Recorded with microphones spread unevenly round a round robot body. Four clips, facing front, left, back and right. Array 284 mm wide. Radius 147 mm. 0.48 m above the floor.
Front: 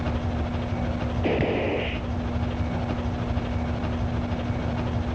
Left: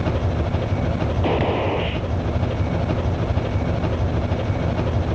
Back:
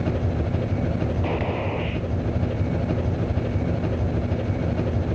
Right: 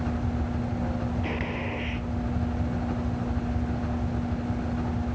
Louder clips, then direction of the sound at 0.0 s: Left 6 dB, back 3 dB; 135° left.